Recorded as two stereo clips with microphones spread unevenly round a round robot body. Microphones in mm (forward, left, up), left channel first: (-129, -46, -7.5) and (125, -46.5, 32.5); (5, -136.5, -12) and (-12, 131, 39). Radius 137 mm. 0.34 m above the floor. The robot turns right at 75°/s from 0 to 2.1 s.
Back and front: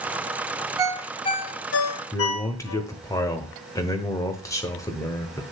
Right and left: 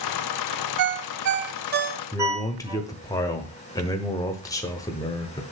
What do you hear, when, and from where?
0.8 s a ringtone: 75° left, 1.1 m; by 2.8 s 175° left, 1.1 m
2.1 s a man speaking: 130° right, 1.1 m